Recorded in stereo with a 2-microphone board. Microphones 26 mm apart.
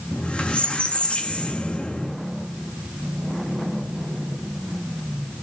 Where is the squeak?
50° left (ahead or behind), 1.8 m.